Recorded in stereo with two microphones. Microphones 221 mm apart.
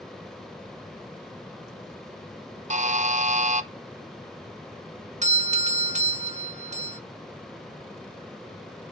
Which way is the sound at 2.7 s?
35° right (ahead or behind).